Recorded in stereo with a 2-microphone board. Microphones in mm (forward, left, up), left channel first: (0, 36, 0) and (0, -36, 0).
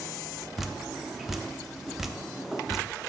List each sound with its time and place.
0.6 s dripping: centre (ahead or behind), 0.5 m